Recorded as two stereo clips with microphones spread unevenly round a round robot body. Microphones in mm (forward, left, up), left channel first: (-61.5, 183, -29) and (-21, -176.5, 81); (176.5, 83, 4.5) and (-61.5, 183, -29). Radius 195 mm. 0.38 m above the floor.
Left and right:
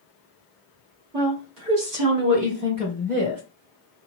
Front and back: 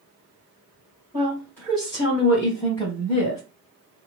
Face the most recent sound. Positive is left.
turn(degrees=-30)